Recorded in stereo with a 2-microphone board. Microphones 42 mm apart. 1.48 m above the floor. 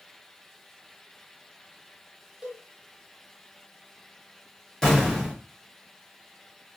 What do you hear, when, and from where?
2.4 s a cowbell: 20° right (ahead or behind), 0.7 m
4.8 s an explosion: 10° left (ahead or behind), 1.3 m